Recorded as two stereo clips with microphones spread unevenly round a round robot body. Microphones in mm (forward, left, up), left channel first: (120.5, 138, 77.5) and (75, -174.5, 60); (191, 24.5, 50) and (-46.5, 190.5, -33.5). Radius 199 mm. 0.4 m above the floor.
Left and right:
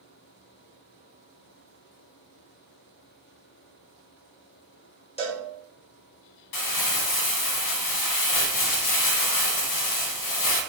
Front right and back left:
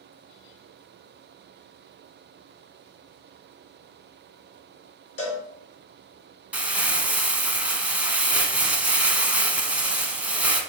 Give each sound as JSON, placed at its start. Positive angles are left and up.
{"t": 5.2, "sound": "a cowbell", "azimuth_deg": 15, "distance_m": 1.4}
{"t": 6.5, "sound": "crumpling", "azimuth_deg": 55, "distance_m": 0.8}